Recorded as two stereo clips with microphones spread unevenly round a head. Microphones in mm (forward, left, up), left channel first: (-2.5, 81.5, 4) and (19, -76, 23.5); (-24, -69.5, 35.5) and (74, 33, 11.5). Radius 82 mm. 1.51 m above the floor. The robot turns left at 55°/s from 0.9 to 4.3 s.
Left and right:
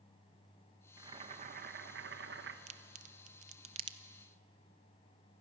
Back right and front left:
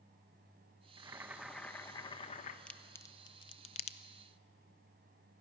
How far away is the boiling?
About 1.1 m.